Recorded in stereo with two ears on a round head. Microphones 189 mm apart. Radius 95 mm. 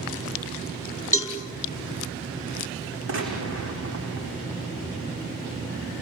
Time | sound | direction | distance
1.1 | a cowbell | 15° left (ahead or behind) | 4.5 m
3.1 | a gunshot | 65° right (ahead or behind) | 8 m